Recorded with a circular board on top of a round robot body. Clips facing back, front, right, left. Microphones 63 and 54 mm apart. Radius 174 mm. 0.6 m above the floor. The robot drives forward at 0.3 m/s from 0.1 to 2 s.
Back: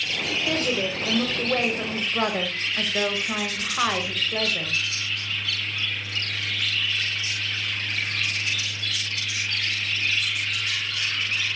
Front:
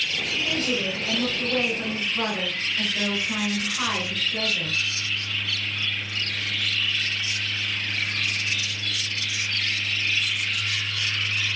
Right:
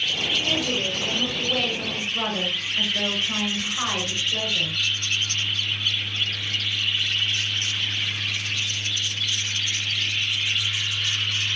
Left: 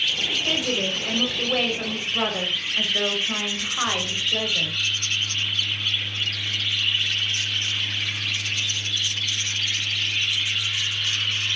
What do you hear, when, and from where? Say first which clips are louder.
0.3 s a woman speaking: back 2 dB, right 2 dB; 155° left, 2.5 m; by 4.8 s 160° left, 3 m